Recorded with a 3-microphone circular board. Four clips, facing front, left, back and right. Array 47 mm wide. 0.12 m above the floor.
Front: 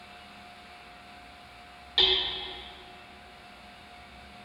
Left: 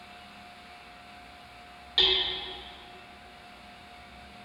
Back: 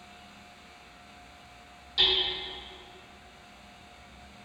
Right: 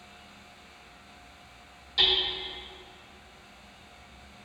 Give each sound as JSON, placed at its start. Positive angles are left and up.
{"t": 2.0, "sound": "hammering", "azimuth_deg": 45, "distance_m": 2.0}